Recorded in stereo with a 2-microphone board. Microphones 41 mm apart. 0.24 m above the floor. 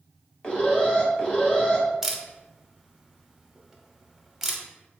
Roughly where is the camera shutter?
Centre.